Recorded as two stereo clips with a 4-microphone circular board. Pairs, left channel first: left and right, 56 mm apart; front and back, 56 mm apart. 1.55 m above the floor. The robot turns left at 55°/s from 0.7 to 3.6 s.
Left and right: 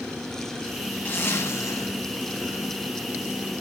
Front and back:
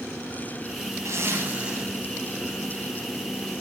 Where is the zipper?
145° left, 8.5 m; by 3.6 s 5° left, 8.5 m.